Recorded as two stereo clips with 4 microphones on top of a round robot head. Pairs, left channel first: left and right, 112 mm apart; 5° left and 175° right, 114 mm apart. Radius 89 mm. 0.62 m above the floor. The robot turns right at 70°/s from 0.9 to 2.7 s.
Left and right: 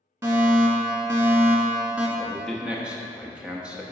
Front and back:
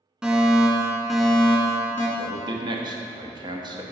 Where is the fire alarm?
100° right, 1.7 m; by 2.1 s 20° right, 1.7 m.